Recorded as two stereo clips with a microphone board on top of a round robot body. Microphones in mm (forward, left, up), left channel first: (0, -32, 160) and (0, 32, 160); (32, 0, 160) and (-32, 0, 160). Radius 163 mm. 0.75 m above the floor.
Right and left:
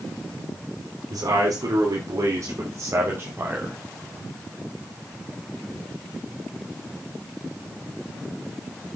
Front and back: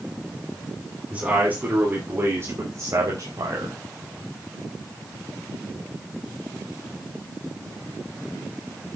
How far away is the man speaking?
About 3 m.